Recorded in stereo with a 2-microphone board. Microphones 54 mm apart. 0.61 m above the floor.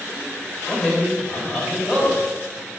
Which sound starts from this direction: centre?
A man speaking, at 0.7 s.